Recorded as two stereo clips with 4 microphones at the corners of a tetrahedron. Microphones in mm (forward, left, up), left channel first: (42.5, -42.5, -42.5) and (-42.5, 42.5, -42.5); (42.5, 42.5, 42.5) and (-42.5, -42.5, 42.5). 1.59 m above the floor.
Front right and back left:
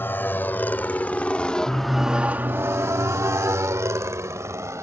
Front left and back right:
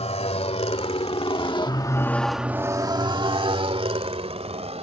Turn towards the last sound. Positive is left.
turn(degrees=-160)